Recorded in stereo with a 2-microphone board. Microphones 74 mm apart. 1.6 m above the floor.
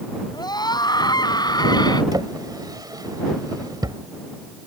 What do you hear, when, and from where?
0.3 s a scream: 80° left
2.1 s a drawer: 70° right (ahead or behind)